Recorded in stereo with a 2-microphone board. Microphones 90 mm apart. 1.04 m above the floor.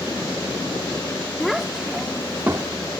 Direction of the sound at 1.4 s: 5° left (ahead or behind).